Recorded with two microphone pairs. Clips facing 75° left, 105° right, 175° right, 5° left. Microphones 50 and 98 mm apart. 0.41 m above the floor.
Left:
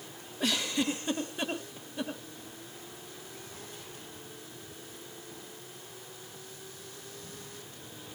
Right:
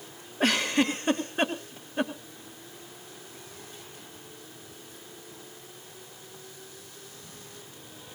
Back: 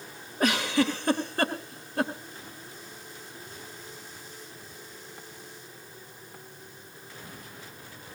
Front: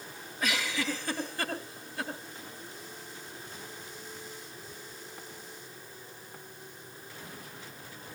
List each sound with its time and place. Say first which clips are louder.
0.4 s a giggle: right 6 dB, back 8 dB; 145° right, 2.5 m